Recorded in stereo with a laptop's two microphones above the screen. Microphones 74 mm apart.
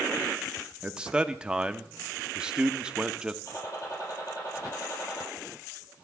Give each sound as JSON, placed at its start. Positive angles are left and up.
{"t": 0.8, "sound": "a man speaking", "side_deg": -15, "distance_m": 0.8}
{"t": 3.5, "sound": "a gunshot", "side_deg": 45, "distance_m": 5.5}